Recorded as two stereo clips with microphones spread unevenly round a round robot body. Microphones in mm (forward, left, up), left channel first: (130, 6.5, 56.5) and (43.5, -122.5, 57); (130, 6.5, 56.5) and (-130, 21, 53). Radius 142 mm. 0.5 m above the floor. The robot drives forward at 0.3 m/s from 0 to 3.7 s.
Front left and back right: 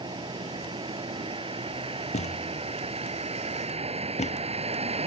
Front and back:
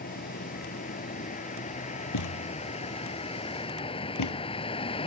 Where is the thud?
10° left.